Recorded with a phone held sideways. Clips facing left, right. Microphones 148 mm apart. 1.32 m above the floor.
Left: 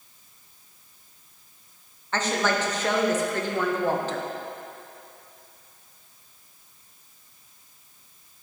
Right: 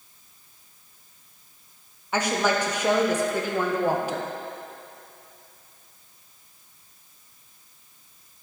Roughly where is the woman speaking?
Centre.